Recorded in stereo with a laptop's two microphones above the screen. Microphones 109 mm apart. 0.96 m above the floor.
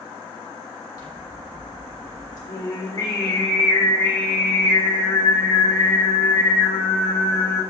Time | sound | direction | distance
1.0 | scissors | 35° left (ahead or behind) | 1.4 m
2.5 | singing | 45° left (ahead or behind) | 1.9 m